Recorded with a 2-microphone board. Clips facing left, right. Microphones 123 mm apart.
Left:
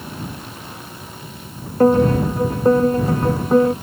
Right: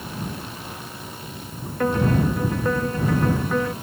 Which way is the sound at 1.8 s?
35° left (ahead or behind).